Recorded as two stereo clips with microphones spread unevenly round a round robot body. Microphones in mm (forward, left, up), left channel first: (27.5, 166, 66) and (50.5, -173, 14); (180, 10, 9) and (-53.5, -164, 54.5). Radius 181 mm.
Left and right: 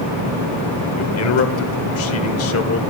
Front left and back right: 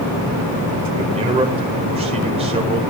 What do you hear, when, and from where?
0.9 s a man speaking: 140° left, 1.5 m